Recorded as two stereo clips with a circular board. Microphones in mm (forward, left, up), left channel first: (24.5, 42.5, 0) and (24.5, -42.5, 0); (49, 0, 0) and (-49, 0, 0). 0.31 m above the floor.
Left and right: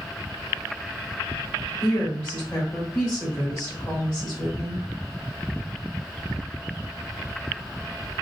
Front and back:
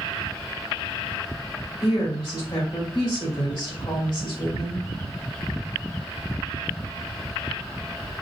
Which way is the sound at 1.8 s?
35° left.